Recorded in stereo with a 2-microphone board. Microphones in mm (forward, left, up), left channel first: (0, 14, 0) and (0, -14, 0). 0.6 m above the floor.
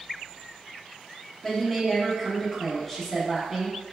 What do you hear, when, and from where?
1.4 s a woman speaking: 10° left (ahead or behind), 0.8 m